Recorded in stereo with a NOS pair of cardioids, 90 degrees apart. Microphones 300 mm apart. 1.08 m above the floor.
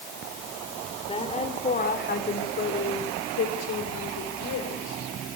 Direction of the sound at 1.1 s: 20° left.